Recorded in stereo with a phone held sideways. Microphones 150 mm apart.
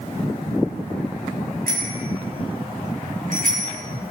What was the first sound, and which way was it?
A bicycle bell, 70° right (ahead or behind).